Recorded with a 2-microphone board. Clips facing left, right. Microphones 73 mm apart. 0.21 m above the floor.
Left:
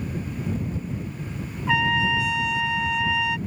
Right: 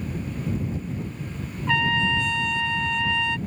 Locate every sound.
1.7 s a trumpet: 5° left (ahead or behind)